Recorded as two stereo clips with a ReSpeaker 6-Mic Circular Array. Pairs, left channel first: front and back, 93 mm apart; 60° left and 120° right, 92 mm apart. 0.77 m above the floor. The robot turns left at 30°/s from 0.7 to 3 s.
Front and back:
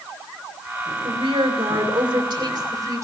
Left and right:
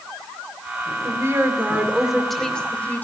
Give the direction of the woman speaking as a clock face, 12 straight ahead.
6 o'clock.